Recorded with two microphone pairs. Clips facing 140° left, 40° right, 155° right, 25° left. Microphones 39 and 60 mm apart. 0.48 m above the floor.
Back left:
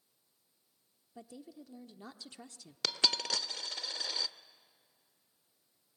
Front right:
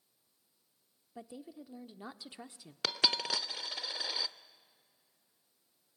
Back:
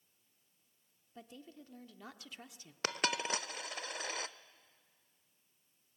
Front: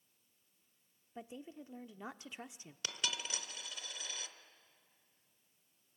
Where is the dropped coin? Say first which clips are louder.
Front right 1 dB, back 7 dB; 120° right, 0.6 m.